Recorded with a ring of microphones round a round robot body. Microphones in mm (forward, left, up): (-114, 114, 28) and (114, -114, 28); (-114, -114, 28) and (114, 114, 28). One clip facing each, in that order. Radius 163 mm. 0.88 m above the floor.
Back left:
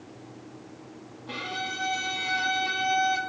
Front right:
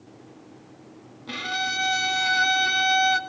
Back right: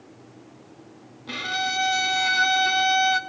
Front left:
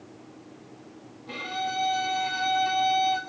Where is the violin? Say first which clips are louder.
Front right 3 dB, back right 2 dB; 90° right, 1.4 m.